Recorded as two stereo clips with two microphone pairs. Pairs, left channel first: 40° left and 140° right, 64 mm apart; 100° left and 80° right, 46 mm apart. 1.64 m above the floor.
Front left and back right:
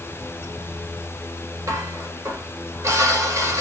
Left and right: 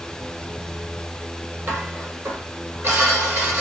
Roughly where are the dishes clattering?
Right.